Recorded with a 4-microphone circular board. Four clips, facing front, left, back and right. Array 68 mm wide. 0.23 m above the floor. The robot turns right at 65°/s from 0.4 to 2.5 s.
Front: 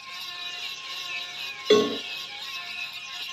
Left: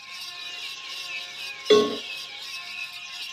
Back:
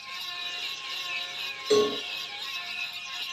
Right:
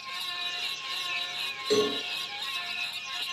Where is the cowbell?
50° left, 1.0 m; by 2.0 s 70° left, 1.0 m.